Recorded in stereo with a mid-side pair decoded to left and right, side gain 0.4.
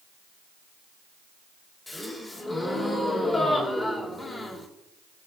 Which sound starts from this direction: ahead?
A gasp, at 1.9 s.